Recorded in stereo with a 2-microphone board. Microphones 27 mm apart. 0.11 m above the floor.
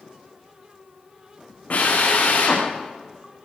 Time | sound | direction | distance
1.7 | a drill | 55° left (ahead or behind) | 8.5 m